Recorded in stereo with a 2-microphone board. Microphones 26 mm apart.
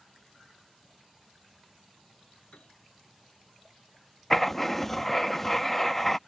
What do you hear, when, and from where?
2.5 s a piano: 65° left (ahead or behind)
4.3 s writing: 10° left (ahead or behind)